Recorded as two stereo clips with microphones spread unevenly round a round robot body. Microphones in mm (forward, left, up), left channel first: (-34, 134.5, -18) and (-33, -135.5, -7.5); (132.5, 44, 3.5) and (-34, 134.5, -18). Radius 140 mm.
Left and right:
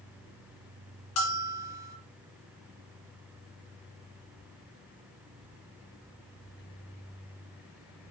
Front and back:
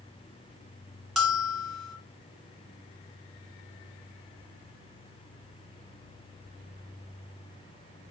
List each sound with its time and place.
1.2 s a bell: 60° left, 1.5 m